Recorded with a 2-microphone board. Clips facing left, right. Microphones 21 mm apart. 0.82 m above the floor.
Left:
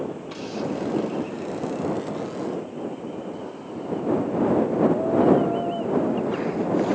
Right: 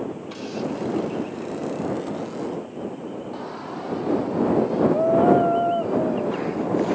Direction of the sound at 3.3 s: 60° right (ahead or behind).